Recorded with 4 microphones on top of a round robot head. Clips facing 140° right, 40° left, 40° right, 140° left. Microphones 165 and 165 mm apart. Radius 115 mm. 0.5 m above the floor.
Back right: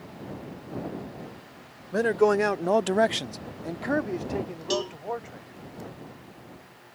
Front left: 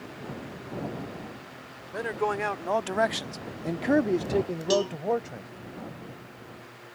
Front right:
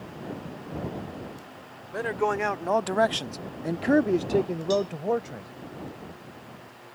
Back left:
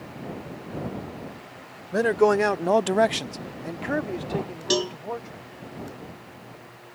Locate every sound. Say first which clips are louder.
1.9 s a man speaking: back right 8 dB, back left 8 dB; straight behind; by 5.5 s 5° right
4.7 s a cowbell: front left 4 dB, even; 130° left